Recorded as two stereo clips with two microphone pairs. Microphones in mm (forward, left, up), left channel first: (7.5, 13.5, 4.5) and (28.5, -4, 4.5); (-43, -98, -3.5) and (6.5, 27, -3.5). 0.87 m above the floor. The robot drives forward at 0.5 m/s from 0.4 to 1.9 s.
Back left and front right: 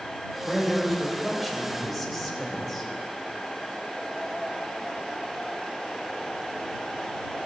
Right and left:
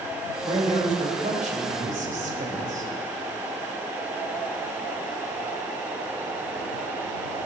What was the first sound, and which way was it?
A man speaking, 45° left.